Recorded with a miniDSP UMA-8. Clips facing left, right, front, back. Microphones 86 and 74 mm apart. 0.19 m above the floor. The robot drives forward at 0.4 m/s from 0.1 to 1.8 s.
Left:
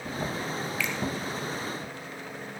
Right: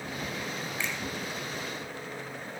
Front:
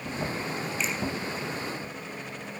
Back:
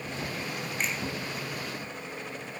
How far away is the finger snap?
About 2.5 m.